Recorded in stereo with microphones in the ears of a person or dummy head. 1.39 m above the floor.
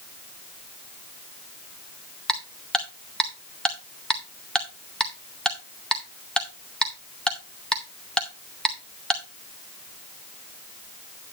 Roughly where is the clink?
No clink in this recording.